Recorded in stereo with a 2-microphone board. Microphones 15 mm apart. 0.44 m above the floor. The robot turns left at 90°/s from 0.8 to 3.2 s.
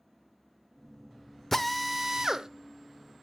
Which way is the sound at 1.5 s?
20° left.